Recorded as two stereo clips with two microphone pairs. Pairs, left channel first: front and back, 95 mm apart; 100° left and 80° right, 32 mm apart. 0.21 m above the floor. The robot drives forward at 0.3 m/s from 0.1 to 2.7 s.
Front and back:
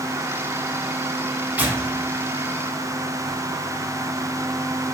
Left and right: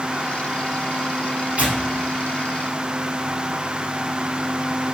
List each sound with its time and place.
1.6 s tearing paper: 110° right, 0.6 m; by 3.4 s 135° right, 0.8 m